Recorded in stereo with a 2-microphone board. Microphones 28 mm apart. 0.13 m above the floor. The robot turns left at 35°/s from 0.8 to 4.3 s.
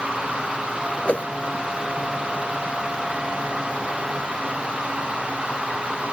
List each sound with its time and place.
1.1 s a whoosh: 50° left (ahead or behind); by 1.2 s 55° left (ahead or behind)